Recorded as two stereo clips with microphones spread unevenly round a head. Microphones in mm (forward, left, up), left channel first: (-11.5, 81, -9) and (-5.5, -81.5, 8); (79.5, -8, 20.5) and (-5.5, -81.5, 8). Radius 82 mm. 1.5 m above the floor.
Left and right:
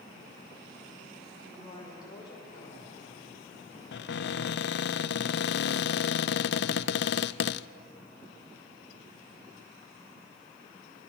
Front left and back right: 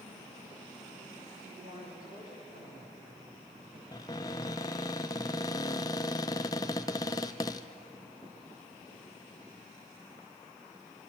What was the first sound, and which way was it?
A woman speaking, 160° left.